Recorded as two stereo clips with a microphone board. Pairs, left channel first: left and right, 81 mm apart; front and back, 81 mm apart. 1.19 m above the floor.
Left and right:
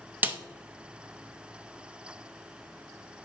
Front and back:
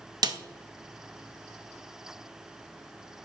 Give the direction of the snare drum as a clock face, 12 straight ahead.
5 o'clock.